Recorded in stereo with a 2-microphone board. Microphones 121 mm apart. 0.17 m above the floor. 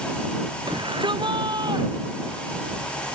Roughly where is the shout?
Right.